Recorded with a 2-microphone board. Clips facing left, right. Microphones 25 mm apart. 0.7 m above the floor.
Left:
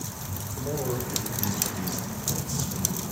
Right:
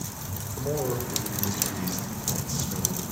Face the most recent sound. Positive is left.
turn(degrees=-15)  # may be behind; listen again after turning